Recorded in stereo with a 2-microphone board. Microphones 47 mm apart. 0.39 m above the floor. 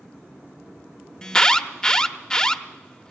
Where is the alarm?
15° left (ahead or behind), 0.7 m.